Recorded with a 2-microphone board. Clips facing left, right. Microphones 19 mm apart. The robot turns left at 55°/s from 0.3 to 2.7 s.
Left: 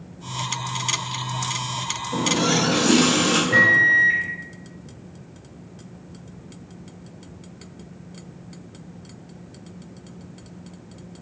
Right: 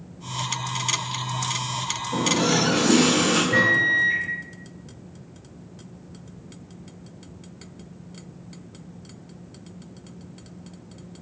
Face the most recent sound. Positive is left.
turn(degrees=30)  # may be behind; listen again after turning